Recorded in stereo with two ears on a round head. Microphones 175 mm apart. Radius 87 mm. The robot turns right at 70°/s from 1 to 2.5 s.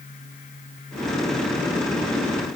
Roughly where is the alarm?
I don't hear an alarm.